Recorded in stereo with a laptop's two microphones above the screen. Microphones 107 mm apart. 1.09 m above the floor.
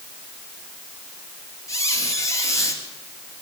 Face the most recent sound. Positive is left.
turn(degrees=30)  # may be behind; listen again after turning